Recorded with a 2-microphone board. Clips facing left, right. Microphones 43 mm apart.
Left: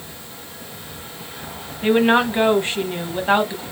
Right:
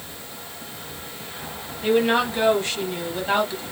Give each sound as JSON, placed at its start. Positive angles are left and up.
{"t": 1.8, "sound": "a woman speaking", "side_deg": 30, "distance_m": 1.2}